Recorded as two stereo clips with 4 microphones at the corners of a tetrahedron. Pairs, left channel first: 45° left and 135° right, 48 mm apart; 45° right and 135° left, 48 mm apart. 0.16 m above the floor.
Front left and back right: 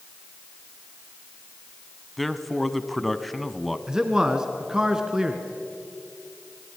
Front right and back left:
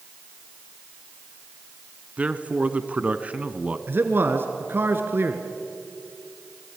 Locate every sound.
2.2 s a man speaking: 140° left, 1.1 m
3.9 s a man speaking: 155° left, 1.8 m